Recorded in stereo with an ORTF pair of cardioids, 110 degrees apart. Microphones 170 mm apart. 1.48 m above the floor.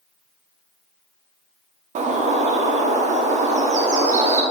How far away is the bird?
About 1.3 m.